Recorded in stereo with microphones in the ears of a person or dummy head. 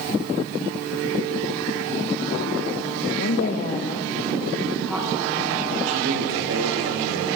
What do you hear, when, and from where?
3.2 s a woman speaking: 60° left (ahead or behind), 1.3 m; by 5.8 s 15° right (ahead or behind), 3.5 m
5.9 s a man speaking: 80° right, 5 m